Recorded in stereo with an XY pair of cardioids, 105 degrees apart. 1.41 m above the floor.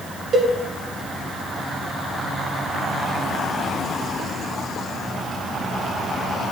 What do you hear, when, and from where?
0.3 s a cowbell: 55° right, 1.6 m